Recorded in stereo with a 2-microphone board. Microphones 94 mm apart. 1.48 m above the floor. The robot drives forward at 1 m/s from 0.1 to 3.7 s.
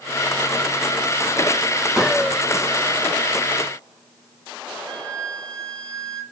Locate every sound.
2.0 s a gunshot: 5° right (ahead or behind), 1.9 m
4.9 s a flute: 75° right (ahead or behind), 5.5 m